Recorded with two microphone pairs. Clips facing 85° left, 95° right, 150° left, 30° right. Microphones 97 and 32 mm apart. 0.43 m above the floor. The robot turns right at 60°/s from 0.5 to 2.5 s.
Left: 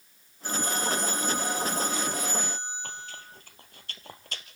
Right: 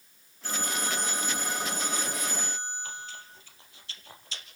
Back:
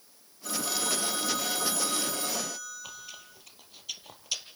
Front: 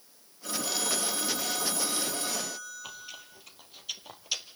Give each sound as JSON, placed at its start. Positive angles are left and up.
{"t": 0.4, "sound": "a phone ringing", "azimuth_deg": 15, "distance_m": 7.5}
{"t": 2.8, "sound": "chewing", "azimuth_deg": 55, "distance_m": 2.0}